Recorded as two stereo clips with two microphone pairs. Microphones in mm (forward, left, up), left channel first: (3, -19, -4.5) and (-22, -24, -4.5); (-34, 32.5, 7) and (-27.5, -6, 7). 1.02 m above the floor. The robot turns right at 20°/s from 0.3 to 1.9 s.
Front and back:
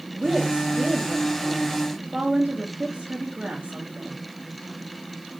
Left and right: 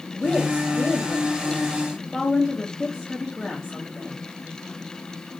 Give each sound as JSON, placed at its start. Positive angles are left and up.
{"t": 0.1, "sound": "a woman speaking", "azimuth_deg": 155, "distance_m": 1.7}